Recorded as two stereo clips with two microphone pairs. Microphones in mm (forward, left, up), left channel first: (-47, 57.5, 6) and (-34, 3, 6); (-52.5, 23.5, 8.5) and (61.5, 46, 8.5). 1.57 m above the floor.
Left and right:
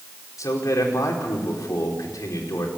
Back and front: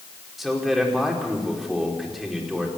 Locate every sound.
0.4 s a man speaking: 100° left, 5 m